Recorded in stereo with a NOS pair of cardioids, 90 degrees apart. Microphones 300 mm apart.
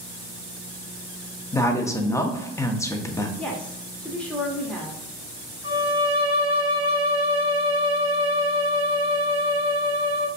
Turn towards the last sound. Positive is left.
turn(degrees=-20)